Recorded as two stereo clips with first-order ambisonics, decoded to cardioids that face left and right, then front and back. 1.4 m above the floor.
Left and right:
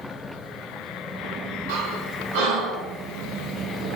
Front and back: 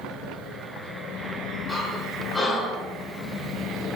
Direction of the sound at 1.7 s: 85° right.